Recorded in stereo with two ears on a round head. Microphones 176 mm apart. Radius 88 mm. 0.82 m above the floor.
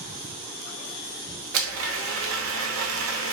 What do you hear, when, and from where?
1.5 s a blender: 80° right, 0.6 m